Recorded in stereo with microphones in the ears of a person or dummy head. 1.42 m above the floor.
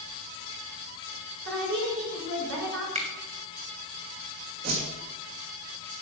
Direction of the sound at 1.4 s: 75° right (ahead or behind).